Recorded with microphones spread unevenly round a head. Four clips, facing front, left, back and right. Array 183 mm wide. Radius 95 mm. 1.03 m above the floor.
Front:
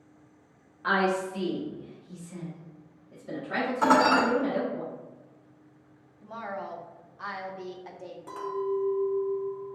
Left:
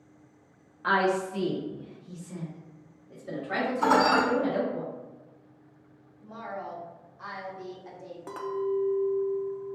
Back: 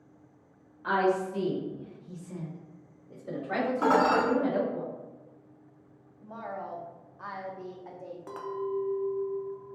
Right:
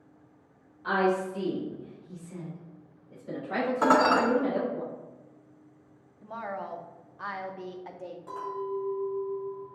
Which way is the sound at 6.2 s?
80° right.